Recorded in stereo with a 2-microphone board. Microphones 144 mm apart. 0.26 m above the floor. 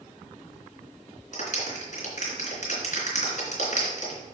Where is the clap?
60° left (ahead or behind), 3 m.